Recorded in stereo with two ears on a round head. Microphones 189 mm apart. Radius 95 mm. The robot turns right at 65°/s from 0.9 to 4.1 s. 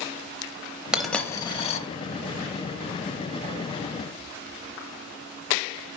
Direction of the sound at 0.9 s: 5° right (ahead or behind).